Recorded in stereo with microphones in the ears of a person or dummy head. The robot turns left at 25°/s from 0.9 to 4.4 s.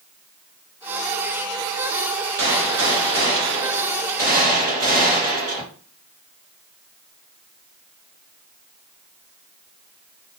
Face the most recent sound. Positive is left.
turn(degrees=-130)